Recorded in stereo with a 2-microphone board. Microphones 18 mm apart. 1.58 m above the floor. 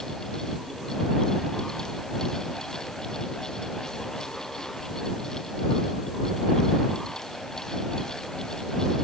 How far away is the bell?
I don't hear a bell.